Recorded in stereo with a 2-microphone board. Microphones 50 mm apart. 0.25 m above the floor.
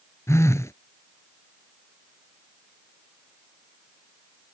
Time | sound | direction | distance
0.3 | a phone buzzing | 75° left (ahead or behind) | ?